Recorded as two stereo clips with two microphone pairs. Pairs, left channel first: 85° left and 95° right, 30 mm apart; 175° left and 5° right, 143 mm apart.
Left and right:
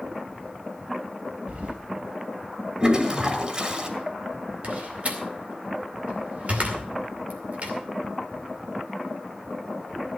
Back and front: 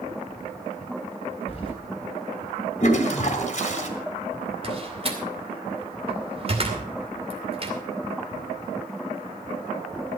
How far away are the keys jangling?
About 4 m.